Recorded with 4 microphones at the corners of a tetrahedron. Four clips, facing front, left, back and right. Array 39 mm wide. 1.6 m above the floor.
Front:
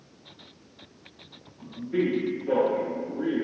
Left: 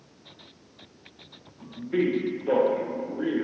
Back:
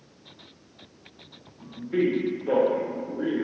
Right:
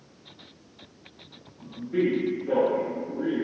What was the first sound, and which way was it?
A man speaking, 125° left.